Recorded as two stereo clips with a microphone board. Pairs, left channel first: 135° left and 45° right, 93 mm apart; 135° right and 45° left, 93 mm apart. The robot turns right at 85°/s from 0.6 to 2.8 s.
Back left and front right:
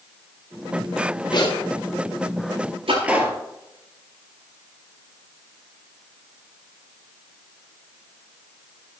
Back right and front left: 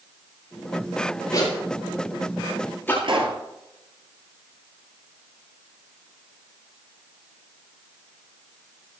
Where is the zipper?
170° left, 8 m; by 2.9 s 65° right, 8 m.